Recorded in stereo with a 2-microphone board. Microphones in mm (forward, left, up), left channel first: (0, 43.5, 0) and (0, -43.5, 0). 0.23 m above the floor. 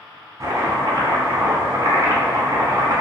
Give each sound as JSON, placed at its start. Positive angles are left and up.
{"t": 0.4, "sound": "chopping", "side_deg": -45, "distance_m": 0.8}